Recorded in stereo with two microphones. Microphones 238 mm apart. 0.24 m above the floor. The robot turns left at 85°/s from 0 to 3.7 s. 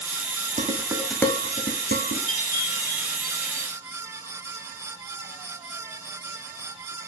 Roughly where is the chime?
Ahead left.